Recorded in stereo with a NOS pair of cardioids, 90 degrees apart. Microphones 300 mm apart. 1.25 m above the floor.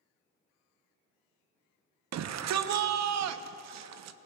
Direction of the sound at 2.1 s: 60° right.